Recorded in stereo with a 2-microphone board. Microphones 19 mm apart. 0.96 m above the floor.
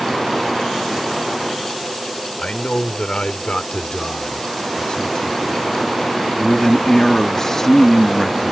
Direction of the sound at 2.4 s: 70° left (ahead or behind).